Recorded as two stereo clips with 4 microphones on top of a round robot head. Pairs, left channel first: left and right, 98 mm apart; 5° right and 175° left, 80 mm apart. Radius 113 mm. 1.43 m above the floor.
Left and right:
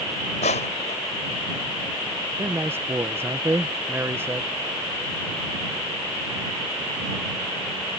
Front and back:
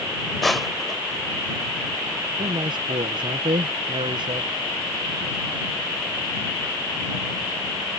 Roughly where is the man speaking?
Behind right.